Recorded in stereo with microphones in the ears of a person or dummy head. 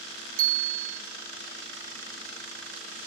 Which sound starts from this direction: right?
A bicycle bell, at 0.4 s.